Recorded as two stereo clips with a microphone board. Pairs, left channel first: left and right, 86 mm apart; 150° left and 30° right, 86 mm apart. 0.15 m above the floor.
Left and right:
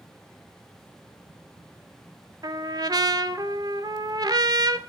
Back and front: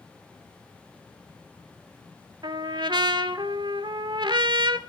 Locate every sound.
2.4 s a trumpet: 55° right, 0.5 m